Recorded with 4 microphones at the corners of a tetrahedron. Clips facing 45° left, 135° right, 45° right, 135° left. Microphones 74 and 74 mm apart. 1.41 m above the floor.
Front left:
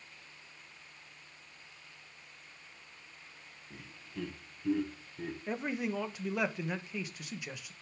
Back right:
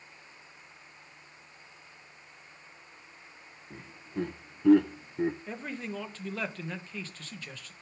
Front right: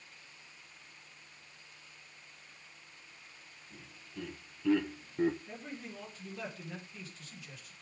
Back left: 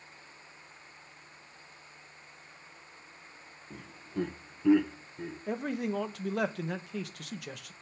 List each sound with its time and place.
3.7 s laughter: 165° left, 1.9 m; by 5.4 s 85° right, 0.9 m
5.5 s a man speaking: 120° left, 1.4 m